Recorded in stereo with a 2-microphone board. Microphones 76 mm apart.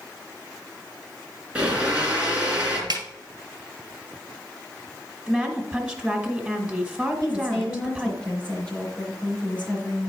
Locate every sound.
1.6 s a blender: 15° right (ahead or behind), 3 m
2.9 s a snare drum: 65° right (ahead or behind), 1.6 m
5.3 s a woman speaking: 5° right (ahead or behind), 1.4 m
7.2 s a woman speaking: 15° left (ahead or behind), 4.5 m